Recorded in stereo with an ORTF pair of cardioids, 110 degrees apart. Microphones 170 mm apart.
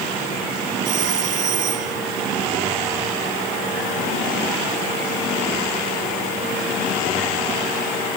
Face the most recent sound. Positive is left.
turn(degrees=-50)